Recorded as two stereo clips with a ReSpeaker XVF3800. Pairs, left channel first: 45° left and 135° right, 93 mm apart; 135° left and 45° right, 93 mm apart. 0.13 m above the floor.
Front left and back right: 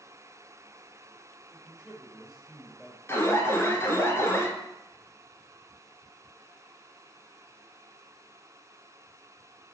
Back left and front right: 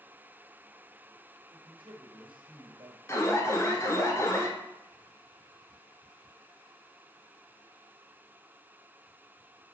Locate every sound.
1.5 s a man speaking: 40° right, 2.5 m
3.1 s an alarm: 90° left, 1.5 m